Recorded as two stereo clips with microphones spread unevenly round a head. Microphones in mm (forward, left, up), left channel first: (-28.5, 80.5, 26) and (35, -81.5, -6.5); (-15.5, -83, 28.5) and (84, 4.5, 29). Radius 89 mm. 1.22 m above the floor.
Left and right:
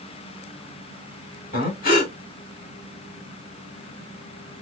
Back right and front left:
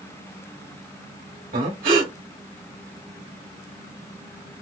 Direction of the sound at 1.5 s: 70° left.